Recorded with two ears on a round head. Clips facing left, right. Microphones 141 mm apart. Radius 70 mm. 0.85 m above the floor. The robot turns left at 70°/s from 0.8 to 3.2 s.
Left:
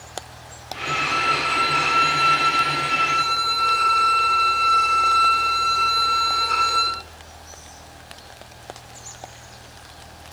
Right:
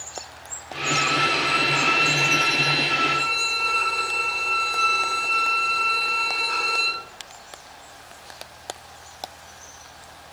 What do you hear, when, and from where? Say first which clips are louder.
0.8 s a violin: right 2 dB; 145° right, 1.1 m; by 7.0 s 50° left, 1.1 m